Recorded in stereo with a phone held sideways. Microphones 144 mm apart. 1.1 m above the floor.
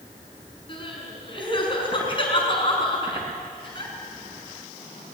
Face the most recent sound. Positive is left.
turn(degrees=35)  # may be behind; listen again after turning